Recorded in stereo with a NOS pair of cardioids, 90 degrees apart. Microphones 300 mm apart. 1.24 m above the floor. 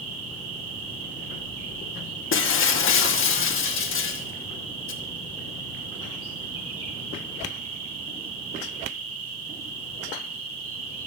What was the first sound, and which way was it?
An insect, 50° right.